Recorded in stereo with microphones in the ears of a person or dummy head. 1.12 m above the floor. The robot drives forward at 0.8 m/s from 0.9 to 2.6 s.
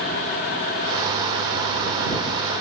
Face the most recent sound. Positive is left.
No sound to turn to.